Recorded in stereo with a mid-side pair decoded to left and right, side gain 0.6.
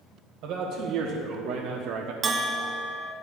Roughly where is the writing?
I don't hear writing.